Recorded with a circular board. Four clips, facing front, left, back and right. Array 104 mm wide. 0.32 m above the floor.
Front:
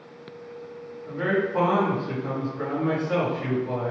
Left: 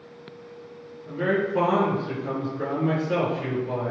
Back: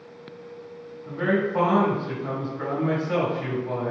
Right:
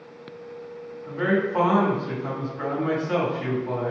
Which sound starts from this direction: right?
A man speaking, at 1.1 s.